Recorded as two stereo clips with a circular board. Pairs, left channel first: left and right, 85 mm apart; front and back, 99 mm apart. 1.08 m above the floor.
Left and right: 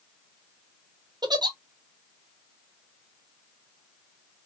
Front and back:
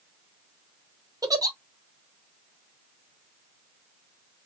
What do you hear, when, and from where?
1.2 s a giggle: 125° right, 0.6 m